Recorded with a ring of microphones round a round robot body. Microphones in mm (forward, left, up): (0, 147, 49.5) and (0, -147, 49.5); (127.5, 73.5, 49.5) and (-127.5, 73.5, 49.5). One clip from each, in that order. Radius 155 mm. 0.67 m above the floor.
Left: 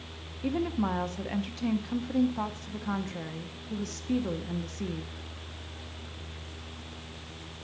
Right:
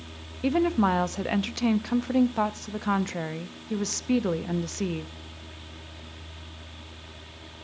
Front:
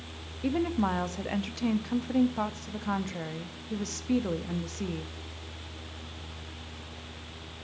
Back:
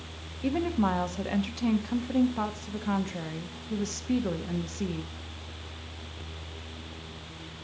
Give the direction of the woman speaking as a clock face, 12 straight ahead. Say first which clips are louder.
Right 7 dB, back 1 dB; 3 o'clock.